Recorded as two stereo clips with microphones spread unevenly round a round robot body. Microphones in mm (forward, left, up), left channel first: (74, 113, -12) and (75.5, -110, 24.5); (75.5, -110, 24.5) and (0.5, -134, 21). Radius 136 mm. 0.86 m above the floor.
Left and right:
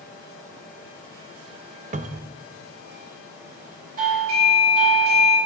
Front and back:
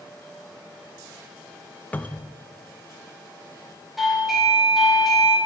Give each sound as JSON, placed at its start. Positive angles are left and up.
{"t": 1.9, "sound": "a cupboard door", "azimuth_deg": -45, "distance_m": 0.6}
{"t": 4.0, "sound": "a doorbell", "azimuth_deg": -75, "distance_m": 4.5}